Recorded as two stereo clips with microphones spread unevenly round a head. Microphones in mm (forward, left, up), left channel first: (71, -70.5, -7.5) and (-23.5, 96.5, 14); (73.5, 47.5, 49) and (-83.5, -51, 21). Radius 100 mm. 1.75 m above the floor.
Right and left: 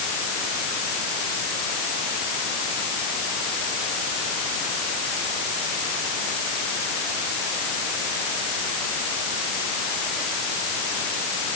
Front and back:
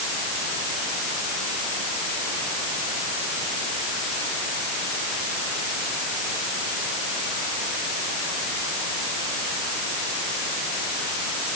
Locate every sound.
Only background noise.